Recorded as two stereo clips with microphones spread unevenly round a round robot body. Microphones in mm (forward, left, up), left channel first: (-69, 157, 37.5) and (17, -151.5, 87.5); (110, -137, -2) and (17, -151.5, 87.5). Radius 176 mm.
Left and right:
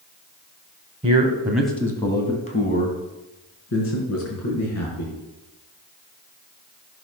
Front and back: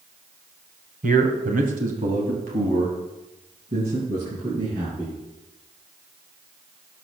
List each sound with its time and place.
1.0 s a man speaking: 150° right, 2.5 m; by 5.2 s 145° left, 5.5 m